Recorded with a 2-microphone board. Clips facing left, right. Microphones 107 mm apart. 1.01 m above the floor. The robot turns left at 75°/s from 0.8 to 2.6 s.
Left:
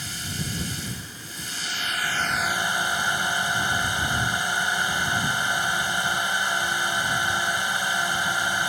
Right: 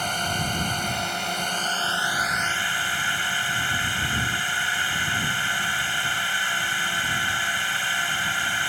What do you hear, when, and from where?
0.0 s a drone: 65° right; by 8.7 s 160° left